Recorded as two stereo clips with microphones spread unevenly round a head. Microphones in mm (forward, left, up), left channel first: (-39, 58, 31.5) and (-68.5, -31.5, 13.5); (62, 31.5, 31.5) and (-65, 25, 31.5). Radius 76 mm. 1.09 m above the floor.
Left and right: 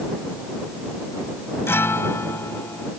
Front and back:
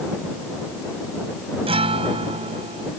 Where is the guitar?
135° left.